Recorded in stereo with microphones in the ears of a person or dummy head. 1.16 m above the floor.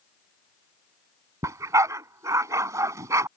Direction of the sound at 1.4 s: 15° right (ahead or behind).